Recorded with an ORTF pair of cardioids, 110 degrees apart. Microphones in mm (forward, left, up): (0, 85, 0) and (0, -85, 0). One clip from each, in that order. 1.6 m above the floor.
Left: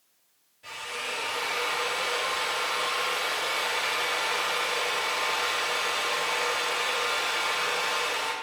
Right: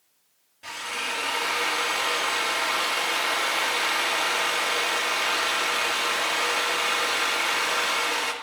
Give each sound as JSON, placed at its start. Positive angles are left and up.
{"t": 0.6, "sound": "a drill", "azimuth_deg": -55, "distance_m": 2.5}